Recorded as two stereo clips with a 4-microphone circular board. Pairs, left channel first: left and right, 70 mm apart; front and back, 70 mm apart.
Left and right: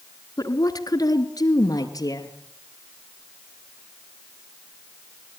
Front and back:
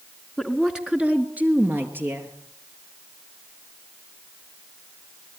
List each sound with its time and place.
0.4 s a woman speaking: 90° left, 2.5 m; by 2.4 s 125° left, 4.5 m